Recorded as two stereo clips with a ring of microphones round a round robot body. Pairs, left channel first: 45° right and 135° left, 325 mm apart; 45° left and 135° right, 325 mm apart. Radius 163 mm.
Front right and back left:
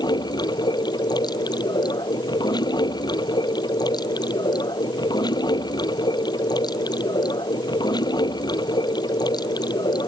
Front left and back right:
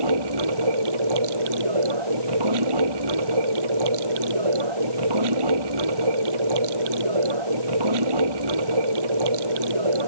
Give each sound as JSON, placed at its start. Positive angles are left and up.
{"t": 0.0, "sound": "running water", "azimuth_deg": -125}